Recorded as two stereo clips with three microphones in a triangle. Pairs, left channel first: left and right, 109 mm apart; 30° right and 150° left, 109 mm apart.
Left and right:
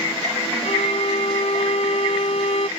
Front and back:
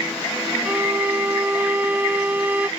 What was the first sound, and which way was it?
A violin, 75° left.